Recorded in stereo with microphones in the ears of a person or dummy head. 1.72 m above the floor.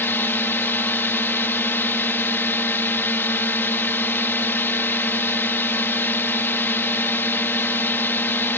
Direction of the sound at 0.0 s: 10° left (ahead or behind).